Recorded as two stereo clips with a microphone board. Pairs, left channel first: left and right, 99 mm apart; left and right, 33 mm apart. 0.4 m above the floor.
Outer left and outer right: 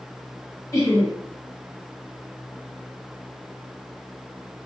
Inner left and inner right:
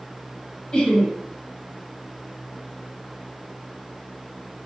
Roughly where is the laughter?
Left.